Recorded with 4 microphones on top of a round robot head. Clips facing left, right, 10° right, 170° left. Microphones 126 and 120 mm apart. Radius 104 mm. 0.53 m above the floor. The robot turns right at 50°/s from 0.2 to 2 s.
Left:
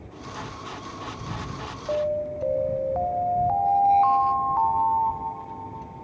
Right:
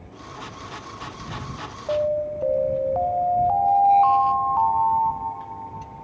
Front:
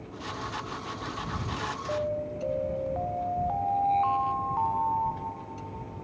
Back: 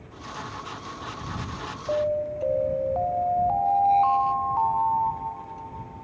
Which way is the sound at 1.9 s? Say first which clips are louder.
Right 3 dB, back 7 dB; 160° right.